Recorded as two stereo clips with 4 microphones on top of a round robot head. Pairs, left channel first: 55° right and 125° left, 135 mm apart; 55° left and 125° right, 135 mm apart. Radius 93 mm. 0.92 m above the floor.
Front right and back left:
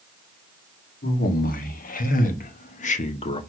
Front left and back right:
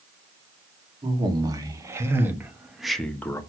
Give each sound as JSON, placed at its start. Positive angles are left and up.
{"t": 1.0, "sound": "a man speaking", "azimuth_deg": -65, "distance_m": 1.9}